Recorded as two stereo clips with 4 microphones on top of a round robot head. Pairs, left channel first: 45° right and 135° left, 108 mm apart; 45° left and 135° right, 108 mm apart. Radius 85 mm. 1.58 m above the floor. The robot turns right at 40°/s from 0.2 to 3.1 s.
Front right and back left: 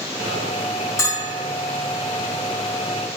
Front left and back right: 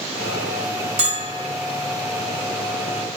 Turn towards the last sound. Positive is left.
turn(degrees=-20)